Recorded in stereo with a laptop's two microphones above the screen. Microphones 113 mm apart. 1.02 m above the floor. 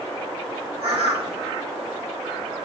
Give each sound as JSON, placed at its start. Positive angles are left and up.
{"t": 0.8, "sound": "a bird", "side_deg": -55, "distance_m": 1.2}